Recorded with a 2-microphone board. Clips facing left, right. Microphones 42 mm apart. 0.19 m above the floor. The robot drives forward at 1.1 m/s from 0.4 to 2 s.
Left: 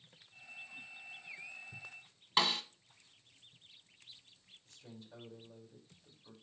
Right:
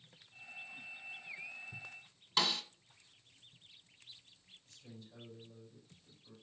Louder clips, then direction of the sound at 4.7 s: Left 2 dB; 80° left.